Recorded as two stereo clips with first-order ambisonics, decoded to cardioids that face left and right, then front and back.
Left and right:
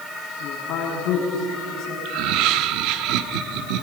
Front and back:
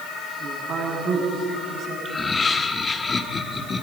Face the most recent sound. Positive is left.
turn(degrees=-70)